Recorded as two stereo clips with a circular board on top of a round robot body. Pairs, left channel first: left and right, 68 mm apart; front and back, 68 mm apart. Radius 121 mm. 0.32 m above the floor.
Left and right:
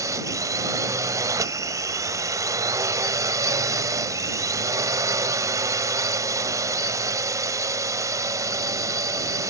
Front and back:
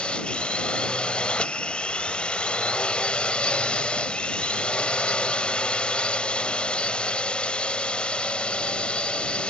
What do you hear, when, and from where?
0.0 s a drone: 70° right